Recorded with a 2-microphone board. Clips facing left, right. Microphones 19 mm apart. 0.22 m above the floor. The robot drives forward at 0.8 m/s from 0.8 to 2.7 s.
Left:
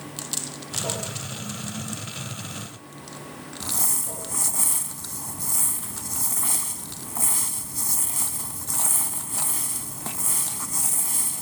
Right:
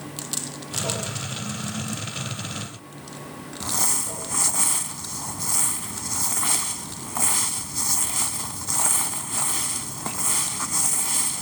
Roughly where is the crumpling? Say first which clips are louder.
Right 3 dB; right.